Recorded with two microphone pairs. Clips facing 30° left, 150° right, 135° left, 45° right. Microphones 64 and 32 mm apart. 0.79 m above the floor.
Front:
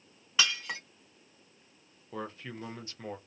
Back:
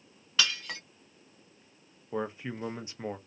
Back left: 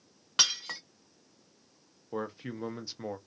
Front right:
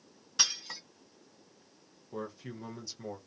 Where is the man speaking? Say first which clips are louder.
Back 5 dB, back left 4 dB; 155° left, 0.6 m.